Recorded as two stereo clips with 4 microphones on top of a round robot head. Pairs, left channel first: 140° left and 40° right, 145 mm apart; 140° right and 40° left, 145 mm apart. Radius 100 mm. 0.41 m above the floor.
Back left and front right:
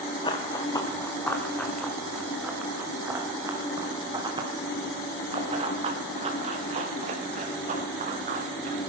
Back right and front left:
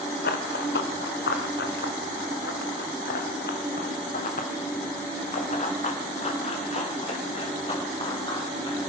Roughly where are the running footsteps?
Behind.